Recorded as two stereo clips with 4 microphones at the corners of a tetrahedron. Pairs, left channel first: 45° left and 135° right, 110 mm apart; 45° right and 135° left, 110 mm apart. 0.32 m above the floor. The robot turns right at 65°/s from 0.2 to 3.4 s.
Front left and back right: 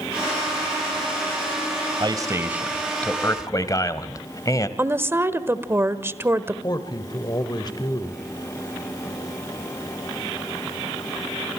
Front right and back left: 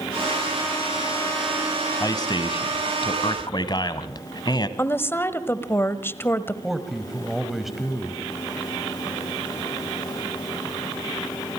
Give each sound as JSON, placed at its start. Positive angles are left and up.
{"t": 2.0, "sound": "a man speaking", "azimuth_deg": -95, "distance_m": 1.5}
{"t": 4.8, "sound": "a woman speaking", "azimuth_deg": -90, "distance_m": 1.2}
{"t": 6.6, "sound": "a man speaking", "azimuth_deg": 50, "distance_m": 1.7}